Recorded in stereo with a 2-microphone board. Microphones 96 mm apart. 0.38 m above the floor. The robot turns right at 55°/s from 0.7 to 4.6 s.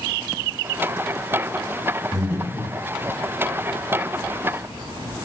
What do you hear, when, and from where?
2.1 s breathing: 20° right (ahead or behind), 1.3 m; by 2.8 s 15° right (ahead or behind), 1.3 m